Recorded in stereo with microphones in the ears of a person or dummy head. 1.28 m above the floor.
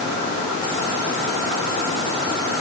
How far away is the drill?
I don't hear a drill.